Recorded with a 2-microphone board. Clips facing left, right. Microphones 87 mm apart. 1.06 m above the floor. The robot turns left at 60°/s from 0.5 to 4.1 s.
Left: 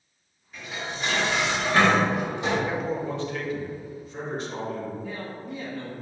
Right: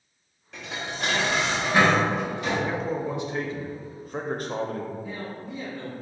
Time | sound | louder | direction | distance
0.5 | dishes clattering | right 1 dB | 90° right | 0.9 m
2.7 | a man speaking | even | 10° left | 0.6 m
5.0 | a man speaking | even | 60° left (ahead or behind) | 1.5 m